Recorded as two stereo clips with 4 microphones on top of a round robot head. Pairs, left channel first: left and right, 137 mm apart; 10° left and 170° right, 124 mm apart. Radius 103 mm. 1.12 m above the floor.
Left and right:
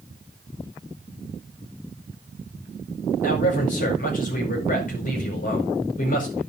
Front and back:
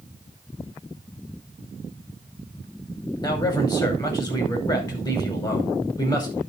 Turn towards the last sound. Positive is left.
turn(degrees=65)